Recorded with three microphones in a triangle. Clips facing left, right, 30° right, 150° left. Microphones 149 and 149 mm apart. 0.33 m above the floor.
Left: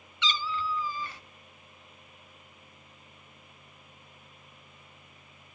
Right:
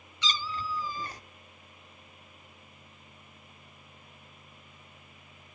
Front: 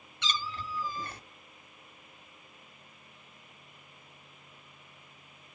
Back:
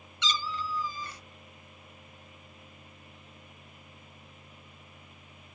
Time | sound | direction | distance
0.2 | a cat meowing | 45° right | 0.7 m